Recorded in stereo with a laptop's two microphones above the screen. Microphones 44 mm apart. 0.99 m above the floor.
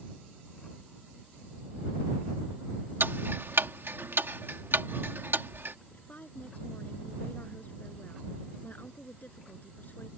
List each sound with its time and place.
3.0 s ticking: 60° right (ahead or behind)
5.9 s a woman speaking: 40° left (ahead or behind)